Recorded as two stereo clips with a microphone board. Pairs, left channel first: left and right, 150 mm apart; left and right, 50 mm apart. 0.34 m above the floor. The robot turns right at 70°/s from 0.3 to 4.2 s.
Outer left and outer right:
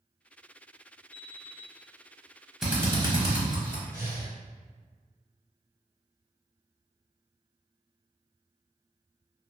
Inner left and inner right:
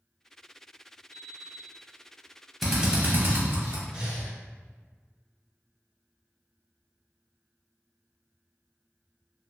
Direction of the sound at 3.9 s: 25° right (ahead or behind).